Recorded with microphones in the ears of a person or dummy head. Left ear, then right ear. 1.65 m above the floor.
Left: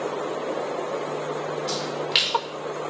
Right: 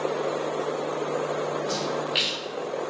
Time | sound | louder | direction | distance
1.7 | a splash | left 2 dB | 45° left (ahead or behind) | 3 m